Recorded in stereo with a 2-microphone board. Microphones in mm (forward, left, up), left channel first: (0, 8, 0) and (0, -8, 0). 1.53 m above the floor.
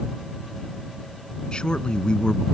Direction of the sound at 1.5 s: 65° left (ahead or behind).